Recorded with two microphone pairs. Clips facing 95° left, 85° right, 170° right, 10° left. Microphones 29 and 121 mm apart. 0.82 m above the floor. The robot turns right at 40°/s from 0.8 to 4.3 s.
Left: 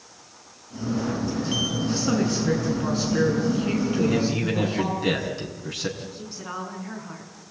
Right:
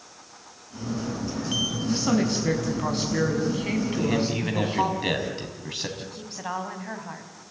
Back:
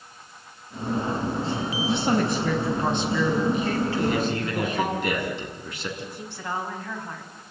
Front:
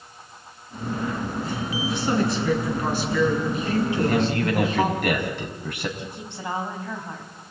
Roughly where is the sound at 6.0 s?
Ahead right.